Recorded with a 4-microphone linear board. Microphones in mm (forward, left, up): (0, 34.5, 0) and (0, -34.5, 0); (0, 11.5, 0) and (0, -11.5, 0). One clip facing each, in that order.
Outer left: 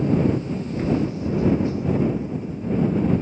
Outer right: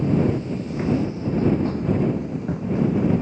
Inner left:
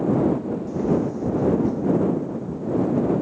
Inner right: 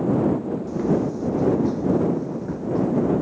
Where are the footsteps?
10° right (ahead or behind); by 3.2 s 65° right (ahead or behind).